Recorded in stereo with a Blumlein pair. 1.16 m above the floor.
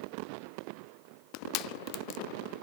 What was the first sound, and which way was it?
Crushing, 40° left.